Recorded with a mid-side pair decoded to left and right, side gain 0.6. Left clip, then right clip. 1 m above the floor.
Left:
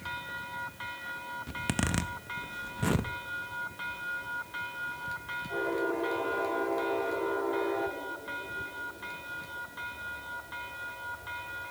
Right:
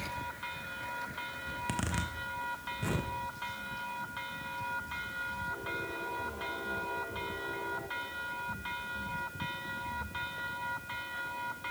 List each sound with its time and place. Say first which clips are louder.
1.5 s a zipper: left 4 dB; 35° left, 0.6 m